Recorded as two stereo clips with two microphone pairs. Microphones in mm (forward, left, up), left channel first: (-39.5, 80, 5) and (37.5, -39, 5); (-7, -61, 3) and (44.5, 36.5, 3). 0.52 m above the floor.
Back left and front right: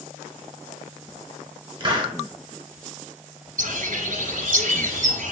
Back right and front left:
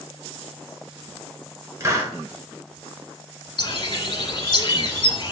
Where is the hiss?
Straight ahead, 0.8 m.